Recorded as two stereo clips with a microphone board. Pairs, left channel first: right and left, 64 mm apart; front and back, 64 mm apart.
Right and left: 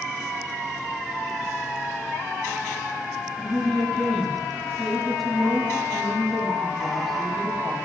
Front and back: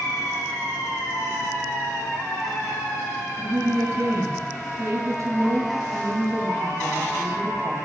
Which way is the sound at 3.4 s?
175° right.